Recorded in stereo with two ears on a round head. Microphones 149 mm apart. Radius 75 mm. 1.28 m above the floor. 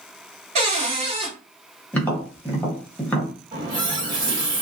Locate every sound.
0.6 s a cupboard door: 40° right (ahead or behind), 1.3 m
1.9 s tapping: 10° left (ahead or behind), 0.8 m
3.5 s a running tap: 25° right (ahead or behind), 1.5 m